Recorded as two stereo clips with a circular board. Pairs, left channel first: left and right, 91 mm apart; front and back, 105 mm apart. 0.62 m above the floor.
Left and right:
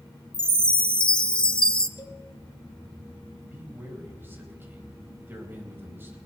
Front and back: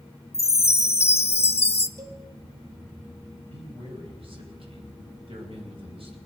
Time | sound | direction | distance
0.3 | a chime | 10° left | 0.6 m
2.0 | a cowbell | 130° left | 1.8 m
3.5 | a man speaking | 155° right | 3.5 m